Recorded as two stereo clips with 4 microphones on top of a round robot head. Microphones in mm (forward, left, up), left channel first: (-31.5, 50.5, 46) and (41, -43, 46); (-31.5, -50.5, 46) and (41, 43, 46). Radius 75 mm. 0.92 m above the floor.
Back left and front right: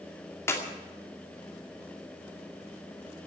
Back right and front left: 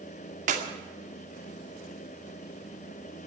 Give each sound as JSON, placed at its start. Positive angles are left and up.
{"t": 0.5, "sound": "a clap", "azimuth_deg": 60, "distance_m": 2.5}